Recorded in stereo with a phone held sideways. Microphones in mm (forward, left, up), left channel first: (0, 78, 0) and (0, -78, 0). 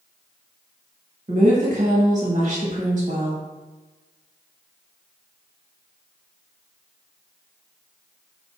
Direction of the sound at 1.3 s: 50° right (ahead or behind).